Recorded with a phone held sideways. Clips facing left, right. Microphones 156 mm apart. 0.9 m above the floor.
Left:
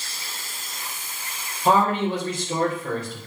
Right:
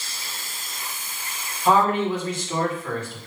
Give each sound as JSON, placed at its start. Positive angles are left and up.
{"t": 1.6, "sound": "a man speaking", "side_deg": 40, "distance_m": 3.0}